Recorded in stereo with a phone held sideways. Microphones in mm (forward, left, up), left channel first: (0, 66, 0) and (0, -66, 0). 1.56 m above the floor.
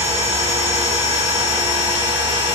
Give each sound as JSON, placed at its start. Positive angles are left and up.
{"t": 0.0, "sound": "a machine running", "side_deg": -60, "distance_m": 5.0}